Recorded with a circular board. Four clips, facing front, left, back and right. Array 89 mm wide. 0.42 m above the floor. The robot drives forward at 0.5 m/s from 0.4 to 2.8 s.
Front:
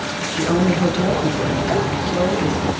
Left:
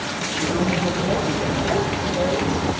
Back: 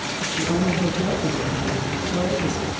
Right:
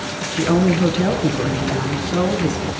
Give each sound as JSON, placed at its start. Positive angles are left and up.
{"t": 0.4, "sound": "a woman speaking", "azimuth_deg": -60, "distance_m": 4.0}